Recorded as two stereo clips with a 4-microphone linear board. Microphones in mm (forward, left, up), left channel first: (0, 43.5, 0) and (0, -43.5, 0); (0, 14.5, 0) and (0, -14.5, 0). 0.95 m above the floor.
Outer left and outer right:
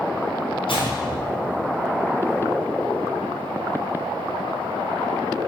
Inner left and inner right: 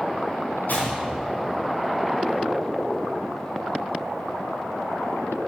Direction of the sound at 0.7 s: 85° left.